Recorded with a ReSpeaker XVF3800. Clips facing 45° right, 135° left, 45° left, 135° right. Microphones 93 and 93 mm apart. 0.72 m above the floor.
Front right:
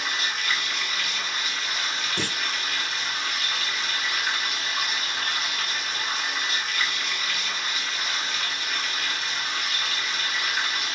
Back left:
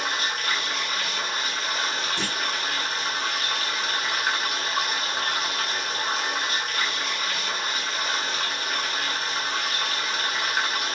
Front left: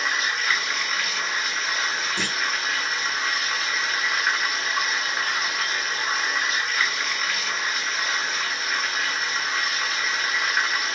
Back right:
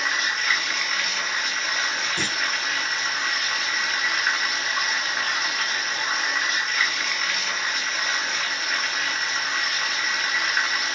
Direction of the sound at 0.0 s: 130° left.